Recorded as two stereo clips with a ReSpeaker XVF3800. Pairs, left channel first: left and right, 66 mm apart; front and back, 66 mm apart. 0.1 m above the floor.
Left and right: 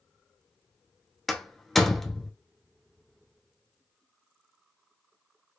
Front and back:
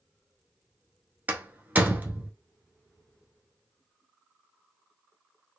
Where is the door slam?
170° left, 0.8 m.